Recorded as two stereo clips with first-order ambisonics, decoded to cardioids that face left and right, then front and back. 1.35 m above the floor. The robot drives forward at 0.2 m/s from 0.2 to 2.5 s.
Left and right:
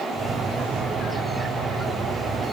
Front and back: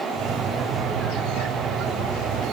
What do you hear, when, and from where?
Only background noise.